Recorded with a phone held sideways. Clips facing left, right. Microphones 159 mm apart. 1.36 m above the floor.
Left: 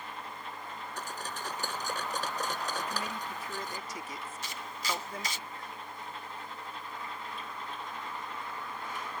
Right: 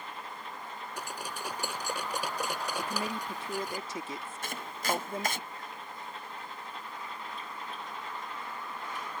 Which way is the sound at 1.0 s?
10° right (ahead or behind).